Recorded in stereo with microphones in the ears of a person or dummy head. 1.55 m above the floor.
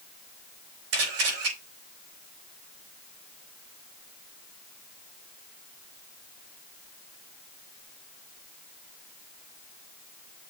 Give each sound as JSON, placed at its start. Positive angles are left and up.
{"t": 0.9, "sound": "a camera shutter", "side_deg": -70, "distance_m": 5.0}